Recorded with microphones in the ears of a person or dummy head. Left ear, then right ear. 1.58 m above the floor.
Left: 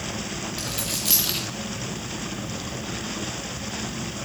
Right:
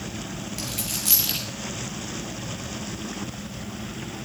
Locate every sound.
0.6 s a dropped coin: centre (ahead or behind), 1.0 m